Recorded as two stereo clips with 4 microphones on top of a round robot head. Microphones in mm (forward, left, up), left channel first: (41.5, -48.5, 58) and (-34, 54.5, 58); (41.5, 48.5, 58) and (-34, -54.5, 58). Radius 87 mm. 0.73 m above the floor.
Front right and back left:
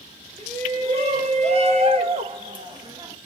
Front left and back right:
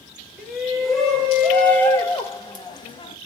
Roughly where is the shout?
Behind left.